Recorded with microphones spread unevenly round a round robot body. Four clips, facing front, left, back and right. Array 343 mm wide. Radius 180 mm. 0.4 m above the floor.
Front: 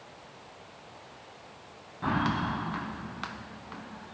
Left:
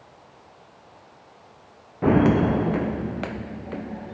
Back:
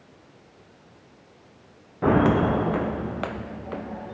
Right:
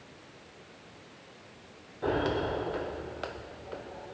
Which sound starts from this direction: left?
Footsteps, at 2.0 s.